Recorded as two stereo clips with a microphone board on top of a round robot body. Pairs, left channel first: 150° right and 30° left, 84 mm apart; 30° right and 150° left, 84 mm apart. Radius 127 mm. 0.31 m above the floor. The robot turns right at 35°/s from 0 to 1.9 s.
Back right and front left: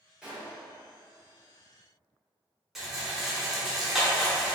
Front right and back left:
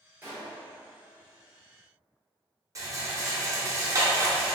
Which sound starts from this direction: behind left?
A rattle, at 2.8 s.